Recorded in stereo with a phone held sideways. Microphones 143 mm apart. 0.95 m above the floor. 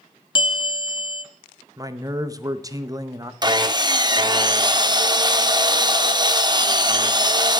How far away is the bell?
About 0.8 m.